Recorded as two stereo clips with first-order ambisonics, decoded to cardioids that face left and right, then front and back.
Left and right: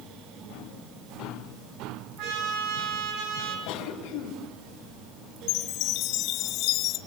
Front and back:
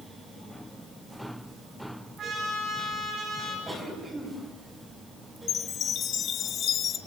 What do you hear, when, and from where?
2.2 s a trumpet: 120° right, 5 m
3.7 s a cough: 95° left, 3.5 m
5.5 s a chime: 55° left, 1.6 m